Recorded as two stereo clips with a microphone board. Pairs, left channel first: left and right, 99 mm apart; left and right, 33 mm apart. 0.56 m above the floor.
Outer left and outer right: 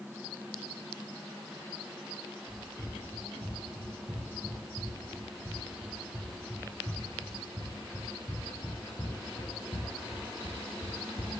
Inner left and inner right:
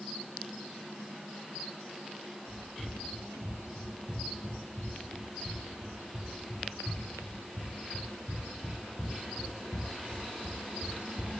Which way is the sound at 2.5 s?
55° right (ahead or behind).